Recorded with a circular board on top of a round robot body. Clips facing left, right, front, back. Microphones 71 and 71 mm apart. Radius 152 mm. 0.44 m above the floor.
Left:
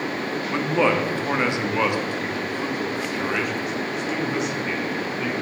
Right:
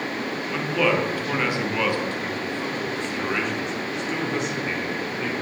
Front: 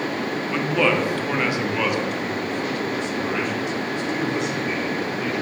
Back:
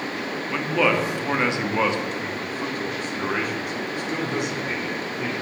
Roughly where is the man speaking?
Left.